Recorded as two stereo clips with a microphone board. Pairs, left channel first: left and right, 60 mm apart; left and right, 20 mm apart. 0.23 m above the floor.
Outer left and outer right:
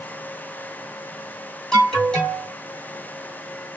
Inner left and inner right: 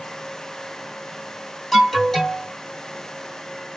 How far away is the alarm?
About 1.8 m.